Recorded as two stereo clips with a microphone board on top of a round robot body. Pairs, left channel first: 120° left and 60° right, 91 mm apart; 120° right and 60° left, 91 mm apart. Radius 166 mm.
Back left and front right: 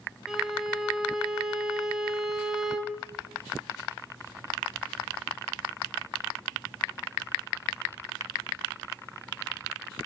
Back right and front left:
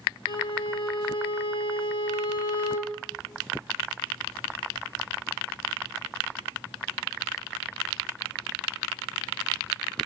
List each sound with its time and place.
0.3 s a violin: 145° right, 1.8 m